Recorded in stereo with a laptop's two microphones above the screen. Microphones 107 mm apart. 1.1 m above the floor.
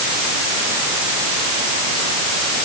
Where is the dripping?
No dripping in this recording.